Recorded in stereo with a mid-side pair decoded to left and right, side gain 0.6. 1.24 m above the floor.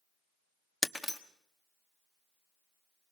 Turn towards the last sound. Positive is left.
turn(degrees=0)